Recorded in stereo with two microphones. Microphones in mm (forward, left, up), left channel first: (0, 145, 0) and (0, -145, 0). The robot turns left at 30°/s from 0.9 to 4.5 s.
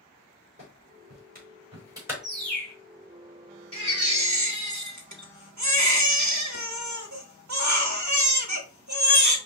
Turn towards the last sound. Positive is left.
turn(degrees=-70)  # may be behind; listen again after turning